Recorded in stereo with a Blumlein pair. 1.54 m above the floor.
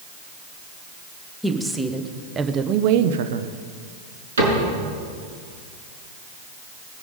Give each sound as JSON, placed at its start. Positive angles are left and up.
{"t": 1.4, "sound": "a woman speaking", "azimuth_deg": 0, "distance_m": 1.5}
{"t": 4.4, "sound": "a cupboard door", "azimuth_deg": -70, "distance_m": 5.5}